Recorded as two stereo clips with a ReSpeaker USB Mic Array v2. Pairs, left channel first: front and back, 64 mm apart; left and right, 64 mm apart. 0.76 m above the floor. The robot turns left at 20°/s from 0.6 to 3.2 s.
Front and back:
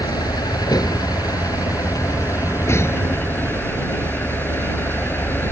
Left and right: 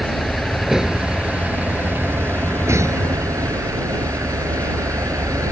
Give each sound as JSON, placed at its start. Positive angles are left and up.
{"t": 0.0, "sound": "a vehicle", "azimuth_deg": -5}